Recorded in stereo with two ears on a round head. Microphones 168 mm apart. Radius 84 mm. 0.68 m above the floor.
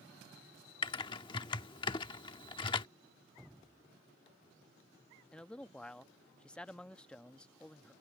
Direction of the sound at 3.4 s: Centre (ahead or behind).